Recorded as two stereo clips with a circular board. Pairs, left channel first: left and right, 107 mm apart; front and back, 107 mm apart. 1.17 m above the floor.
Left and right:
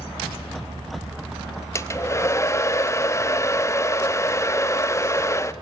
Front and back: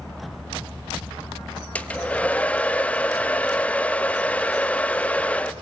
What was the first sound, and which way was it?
A hair dryer, 65° left.